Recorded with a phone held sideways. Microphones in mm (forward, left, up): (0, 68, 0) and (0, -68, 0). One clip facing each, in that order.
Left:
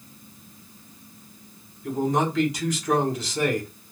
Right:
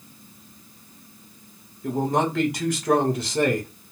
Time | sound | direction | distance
1.8 | a man speaking | 60° right (ahead or behind) | 1.5 m